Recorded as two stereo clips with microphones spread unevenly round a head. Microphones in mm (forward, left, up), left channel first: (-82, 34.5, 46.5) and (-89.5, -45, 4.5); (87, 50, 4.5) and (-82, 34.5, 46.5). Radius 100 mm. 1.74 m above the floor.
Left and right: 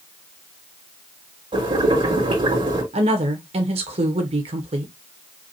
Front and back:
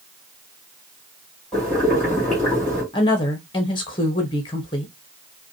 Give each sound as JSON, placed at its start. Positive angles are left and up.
{"t": 1.5, "sound": "boiling", "azimuth_deg": -85, "distance_m": 2.5}
{"t": 2.9, "sound": "a woman speaking", "azimuth_deg": -70, "distance_m": 1.0}